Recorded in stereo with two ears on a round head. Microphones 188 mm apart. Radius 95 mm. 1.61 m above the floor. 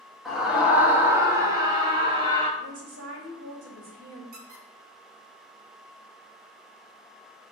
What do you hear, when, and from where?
0.2 s a scream: centre (ahead or behind), 2 m; by 2.5 s 30° right (ahead or behind), 2.5 m
2.6 s a woman speaking: 75° right (ahead or behind), 3.5 m
4.3 s a squeak: 50° right (ahead or behind), 2 m